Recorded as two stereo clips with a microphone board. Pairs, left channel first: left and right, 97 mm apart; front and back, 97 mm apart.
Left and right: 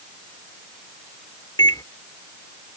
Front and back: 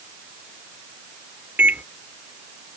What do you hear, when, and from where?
1.6 s a microwave: 115° left